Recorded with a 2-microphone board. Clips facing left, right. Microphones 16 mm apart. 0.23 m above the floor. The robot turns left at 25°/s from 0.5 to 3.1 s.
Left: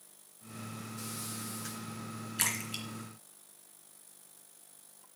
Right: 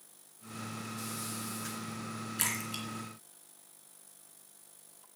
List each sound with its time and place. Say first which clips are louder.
2.4 s a splash: left 2 dB; 15° left (ahead or behind), 3 m; by 4.4 s centre (ahead or behind), 3 m